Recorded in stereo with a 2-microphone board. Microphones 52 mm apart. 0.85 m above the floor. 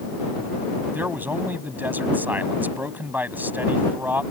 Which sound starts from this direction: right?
A man speaking, at 0.9 s.